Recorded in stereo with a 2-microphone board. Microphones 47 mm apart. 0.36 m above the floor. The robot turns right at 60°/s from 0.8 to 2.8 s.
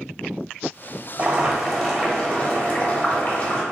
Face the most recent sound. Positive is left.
turn(degrees=60)